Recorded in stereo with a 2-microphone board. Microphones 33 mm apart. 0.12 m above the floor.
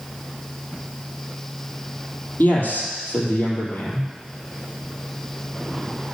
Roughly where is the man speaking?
Left.